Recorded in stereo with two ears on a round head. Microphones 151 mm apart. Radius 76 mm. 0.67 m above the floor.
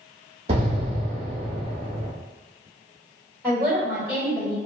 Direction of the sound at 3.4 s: 10° left (ahead or behind).